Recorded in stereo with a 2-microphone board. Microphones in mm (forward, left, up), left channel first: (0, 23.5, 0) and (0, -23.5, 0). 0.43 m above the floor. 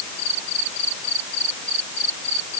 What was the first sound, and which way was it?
Only background noise.